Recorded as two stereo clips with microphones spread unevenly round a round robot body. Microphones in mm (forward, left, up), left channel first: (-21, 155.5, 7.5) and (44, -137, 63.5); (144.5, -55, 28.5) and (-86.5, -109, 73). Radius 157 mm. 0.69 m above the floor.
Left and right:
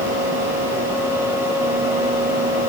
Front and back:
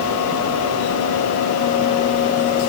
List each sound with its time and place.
Only background noise.